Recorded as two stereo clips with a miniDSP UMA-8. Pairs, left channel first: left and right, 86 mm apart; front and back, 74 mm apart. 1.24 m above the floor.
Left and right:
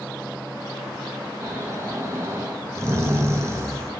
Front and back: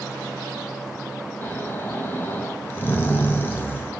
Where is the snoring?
50° right, 0.6 m.